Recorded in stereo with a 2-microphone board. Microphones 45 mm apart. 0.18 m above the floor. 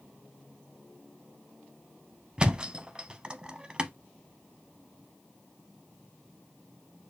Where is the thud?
20° right (ahead or behind), 0.5 m.